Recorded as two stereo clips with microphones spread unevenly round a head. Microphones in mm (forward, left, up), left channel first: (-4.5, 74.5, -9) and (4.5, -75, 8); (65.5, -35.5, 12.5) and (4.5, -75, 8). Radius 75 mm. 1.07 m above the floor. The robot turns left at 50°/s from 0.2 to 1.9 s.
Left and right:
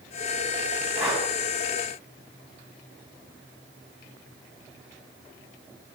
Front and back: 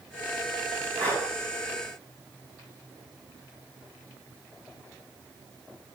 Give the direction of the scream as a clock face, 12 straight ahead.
I don't hear a scream.